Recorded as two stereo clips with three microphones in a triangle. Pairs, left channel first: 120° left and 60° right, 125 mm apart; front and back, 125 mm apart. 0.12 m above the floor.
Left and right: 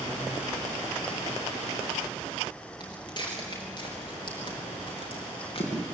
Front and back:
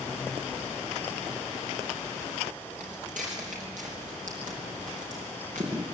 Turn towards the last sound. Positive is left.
turn(degrees=165)